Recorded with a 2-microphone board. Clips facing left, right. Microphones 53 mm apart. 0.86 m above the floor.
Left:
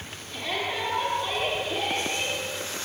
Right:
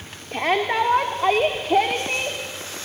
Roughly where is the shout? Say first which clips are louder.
Right 9 dB; right.